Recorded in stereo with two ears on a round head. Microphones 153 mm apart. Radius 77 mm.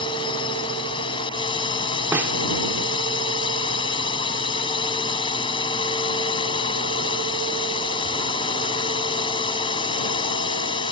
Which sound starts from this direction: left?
A drone, at 0.0 s.